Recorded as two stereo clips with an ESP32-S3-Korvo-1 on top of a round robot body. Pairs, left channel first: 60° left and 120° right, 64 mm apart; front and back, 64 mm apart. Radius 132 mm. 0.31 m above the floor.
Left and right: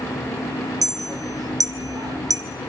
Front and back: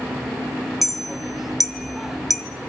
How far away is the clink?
About 1.9 m.